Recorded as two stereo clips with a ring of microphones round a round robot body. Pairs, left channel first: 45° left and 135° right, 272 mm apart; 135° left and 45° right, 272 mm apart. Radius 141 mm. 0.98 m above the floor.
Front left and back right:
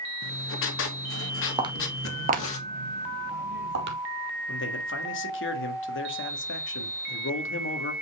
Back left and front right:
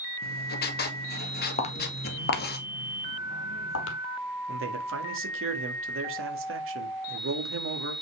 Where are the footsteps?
170° left, 1.0 m; by 4.0 s 175° left, 1.9 m.